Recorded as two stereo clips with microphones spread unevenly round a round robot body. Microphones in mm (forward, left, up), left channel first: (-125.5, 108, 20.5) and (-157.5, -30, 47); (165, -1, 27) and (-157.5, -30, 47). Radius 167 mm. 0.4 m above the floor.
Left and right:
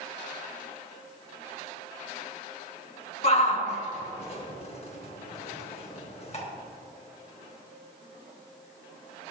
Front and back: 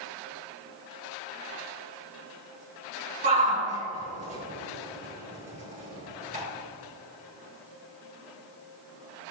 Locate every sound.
3.2 s a shout: 115° left, 4 m